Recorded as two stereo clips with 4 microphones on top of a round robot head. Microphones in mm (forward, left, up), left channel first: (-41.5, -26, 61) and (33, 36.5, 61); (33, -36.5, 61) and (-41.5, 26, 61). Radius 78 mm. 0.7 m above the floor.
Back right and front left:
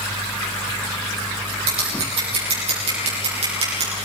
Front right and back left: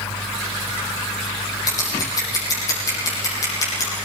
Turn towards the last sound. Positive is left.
turn(degrees=15)